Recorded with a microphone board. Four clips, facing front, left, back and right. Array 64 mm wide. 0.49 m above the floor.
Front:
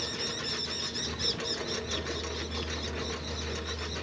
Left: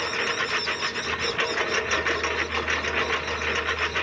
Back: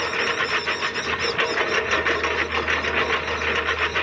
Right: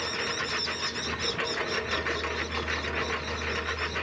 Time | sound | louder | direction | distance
0.0 | a lawn mower | left 5 dB, back 14 dB | 160° left | ?